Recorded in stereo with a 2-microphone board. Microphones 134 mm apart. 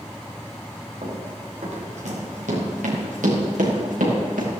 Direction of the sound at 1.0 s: 55° right (ahead or behind).